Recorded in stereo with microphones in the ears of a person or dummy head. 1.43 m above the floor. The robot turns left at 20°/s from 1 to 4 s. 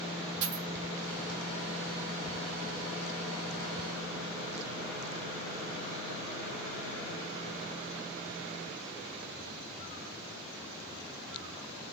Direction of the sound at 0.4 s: 50° right (ahead or behind).